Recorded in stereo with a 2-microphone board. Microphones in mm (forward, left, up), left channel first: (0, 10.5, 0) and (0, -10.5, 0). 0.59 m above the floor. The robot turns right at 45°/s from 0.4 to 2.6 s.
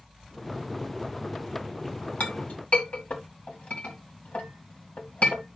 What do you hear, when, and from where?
2.2 s a clink: 75° left (ahead or behind), 2 m; by 5.4 s 85° left, 2 m